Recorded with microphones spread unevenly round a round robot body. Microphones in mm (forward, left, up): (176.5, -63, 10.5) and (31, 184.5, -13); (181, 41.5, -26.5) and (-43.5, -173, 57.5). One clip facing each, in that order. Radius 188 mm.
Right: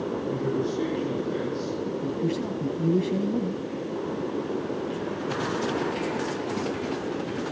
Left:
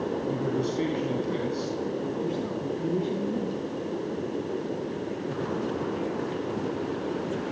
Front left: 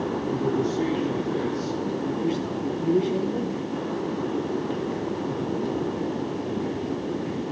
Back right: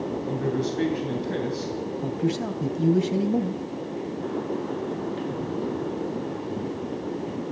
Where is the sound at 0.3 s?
Straight behind, 3.5 m.